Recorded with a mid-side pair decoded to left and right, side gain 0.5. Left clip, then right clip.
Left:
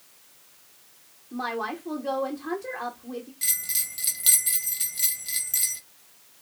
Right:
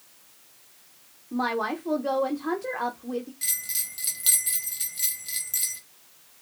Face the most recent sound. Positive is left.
turn(degrees=15)